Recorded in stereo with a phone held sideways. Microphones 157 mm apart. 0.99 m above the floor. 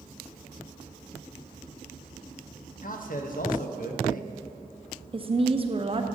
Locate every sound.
2.8 s a man speaking: 65° left (ahead or behind), 1.0 m
5.1 s a woman speaking: 35° right (ahead or behind), 0.8 m